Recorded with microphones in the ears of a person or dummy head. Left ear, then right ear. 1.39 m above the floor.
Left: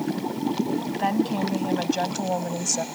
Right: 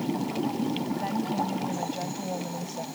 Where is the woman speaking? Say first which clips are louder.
Left 6 dB; 45° left (ahead or behind); by 2.9 s 50° left (ahead or behind).